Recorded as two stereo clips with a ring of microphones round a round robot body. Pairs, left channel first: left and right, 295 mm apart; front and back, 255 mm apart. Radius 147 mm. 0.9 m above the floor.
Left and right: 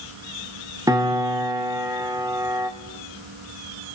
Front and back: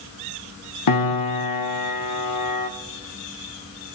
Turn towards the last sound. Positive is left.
turn(degrees=-10)